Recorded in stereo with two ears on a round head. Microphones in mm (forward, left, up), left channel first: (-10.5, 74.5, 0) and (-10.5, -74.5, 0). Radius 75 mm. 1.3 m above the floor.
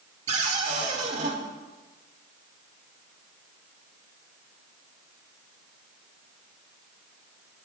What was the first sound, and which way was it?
A cupboard door, 45° right (ahead or behind).